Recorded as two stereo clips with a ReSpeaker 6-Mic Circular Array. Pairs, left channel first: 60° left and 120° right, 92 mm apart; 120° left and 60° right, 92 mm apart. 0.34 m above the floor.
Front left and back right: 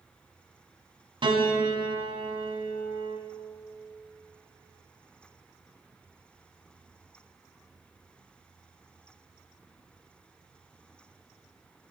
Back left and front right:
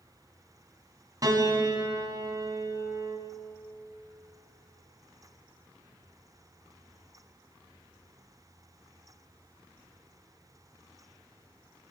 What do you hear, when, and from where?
1.2 s a piano: 105° right, 3 m